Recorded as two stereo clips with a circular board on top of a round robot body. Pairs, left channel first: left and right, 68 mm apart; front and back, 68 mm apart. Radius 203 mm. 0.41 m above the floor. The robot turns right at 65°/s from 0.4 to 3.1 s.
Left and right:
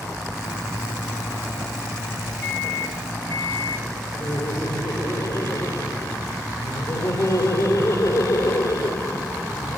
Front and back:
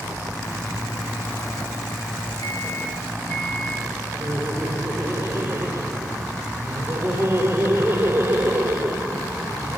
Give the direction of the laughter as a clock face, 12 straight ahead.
8 o'clock.